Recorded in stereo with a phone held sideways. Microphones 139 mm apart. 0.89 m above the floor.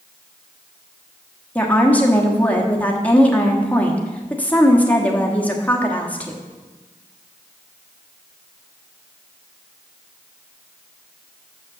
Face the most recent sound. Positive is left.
turn(degrees=10)  # may be behind; listen again after turning